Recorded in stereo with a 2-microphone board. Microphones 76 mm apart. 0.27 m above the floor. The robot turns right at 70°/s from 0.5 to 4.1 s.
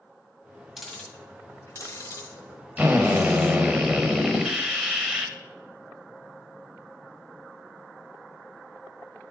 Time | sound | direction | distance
0.8 | ticking | 5° right (ahead or behind) | 1.6 m
2.8 | a drill | 20° right (ahead or behind) | 0.9 m